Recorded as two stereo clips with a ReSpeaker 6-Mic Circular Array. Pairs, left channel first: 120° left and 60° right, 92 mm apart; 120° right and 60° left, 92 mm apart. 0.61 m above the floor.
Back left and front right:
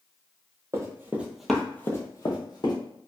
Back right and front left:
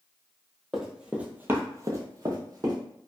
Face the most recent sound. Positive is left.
turn(degrees=100)